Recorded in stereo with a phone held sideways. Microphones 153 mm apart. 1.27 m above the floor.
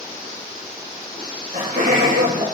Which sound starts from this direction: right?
Laughter, at 1.2 s.